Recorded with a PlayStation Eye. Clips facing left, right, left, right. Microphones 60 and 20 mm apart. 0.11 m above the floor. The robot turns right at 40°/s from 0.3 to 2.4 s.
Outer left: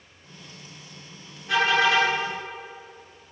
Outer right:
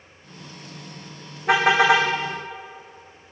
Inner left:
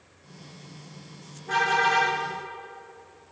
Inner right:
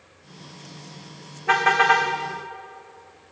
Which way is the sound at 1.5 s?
60° right (ahead or behind).